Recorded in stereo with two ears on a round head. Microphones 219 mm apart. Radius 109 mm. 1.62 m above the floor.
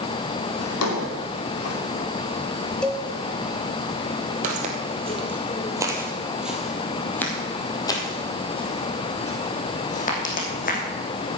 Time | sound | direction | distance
0.6 | a drawer | 70° left (ahead or behind) | 2.5 m
2.8 | a cowbell | 5° left (ahead or behind) | 1.2 m
4.4 | footsteps | 35° right (ahead or behind) | 1.9 m